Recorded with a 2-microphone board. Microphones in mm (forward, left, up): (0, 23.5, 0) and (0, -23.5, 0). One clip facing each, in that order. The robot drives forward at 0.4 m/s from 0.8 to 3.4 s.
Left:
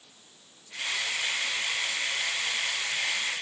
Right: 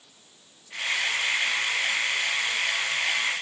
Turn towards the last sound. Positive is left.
No sound to turn to.